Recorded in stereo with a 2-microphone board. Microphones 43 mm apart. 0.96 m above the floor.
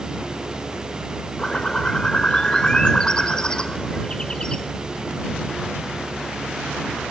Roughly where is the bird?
Centre.